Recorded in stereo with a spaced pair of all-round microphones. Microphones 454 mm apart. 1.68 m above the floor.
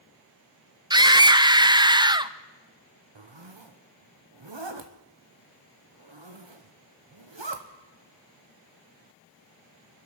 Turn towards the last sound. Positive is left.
turn(degrees=-70)  # may be behind; listen again after turning